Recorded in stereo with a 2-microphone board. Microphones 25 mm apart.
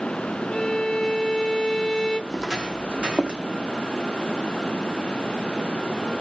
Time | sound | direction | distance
0.5 | a violin | 25° left (ahead or behind) | 0.6 m
2.3 | footsteps | 20° right (ahead or behind) | 0.6 m